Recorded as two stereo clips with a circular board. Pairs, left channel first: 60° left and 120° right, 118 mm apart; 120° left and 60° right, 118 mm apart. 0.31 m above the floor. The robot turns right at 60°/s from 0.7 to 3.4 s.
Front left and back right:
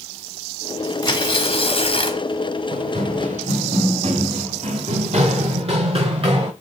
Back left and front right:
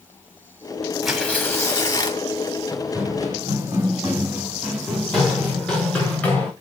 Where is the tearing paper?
25° left, 1.2 m; by 2.2 s 100° left, 1.2 m.